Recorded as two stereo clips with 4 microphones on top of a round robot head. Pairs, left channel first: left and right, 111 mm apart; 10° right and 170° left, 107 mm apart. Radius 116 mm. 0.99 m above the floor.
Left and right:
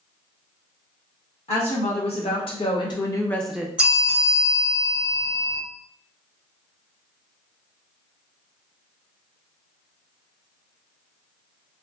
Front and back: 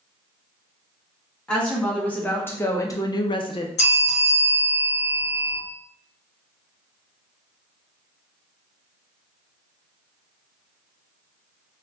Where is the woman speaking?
70° left, 1.5 m; by 3.7 s 20° right, 0.5 m.